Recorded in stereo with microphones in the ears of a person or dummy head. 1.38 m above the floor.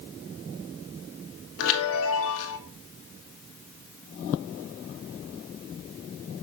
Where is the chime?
75° left (ahead or behind), 1.2 m.